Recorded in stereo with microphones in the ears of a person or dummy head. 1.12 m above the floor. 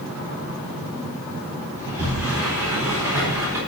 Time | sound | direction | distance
1.8 | a sliding door | 10° right (ahead or behind) | 4 m